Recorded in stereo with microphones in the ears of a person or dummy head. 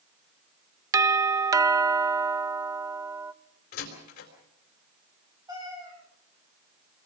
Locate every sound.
0.9 s a doorbell: 15° right (ahead or behind), 0.5 m
3.7 s a door slam: 55° left (ahead or behind), 4 m
5.5 s a cat meowing: 20° right (ahead or behind), 6.5 m